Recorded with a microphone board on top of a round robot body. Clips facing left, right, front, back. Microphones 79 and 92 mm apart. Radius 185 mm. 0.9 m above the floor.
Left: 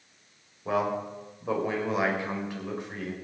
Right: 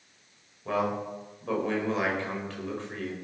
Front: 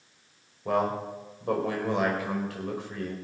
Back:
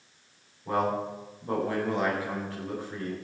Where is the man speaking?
15° left, 5 m.